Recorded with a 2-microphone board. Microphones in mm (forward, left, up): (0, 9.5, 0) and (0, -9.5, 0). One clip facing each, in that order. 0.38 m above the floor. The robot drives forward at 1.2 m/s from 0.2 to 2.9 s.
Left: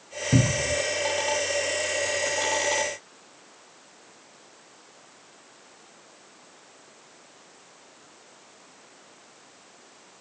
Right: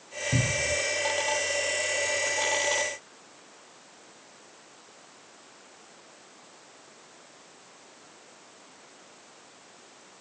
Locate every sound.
0.3 s a cupboard door: 55° left (ahead or behind), 0.7 m; by 0.8 s 35° left (ahead or behind), 1.1 m